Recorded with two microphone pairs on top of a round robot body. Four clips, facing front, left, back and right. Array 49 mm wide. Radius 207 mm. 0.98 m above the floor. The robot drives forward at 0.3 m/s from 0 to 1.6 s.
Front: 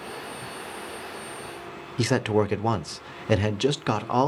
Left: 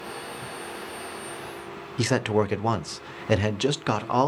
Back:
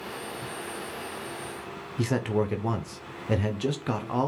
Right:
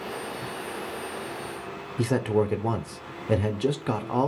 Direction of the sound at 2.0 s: 45° left.